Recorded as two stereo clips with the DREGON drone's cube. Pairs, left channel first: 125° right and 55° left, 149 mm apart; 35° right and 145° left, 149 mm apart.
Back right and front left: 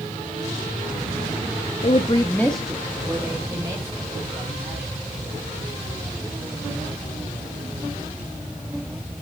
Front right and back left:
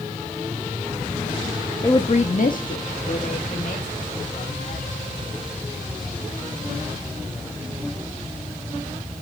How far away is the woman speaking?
About 0.8 m.